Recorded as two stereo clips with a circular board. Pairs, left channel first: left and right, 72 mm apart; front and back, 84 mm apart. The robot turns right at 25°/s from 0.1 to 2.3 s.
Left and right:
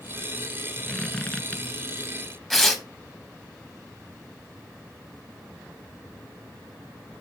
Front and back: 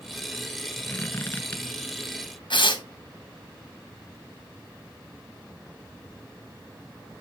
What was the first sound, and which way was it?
A squeak, 25° left.